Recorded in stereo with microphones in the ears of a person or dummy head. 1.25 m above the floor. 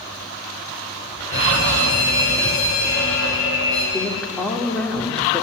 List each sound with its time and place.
1.3 s a fire alarm: 75° left (ahead or behind), 7.5 m
3.9 s a woman speaking: 10° left (ahead or behind), 3.5 m